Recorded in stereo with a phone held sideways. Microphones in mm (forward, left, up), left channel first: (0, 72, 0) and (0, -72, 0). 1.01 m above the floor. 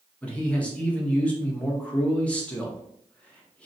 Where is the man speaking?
10° left (ahead or behind), 0.9 m.